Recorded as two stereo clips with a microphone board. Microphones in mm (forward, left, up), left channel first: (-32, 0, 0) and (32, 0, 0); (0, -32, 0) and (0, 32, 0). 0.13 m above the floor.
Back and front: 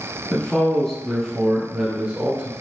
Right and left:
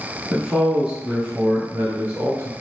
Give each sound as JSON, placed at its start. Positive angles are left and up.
{"t": 0.3, "sound": "a man speaking", "azimuth_deg": 155, "distance_m": 1.3}